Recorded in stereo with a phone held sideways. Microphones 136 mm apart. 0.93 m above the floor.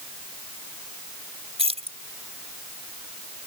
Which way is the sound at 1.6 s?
50° right (ahead or behind).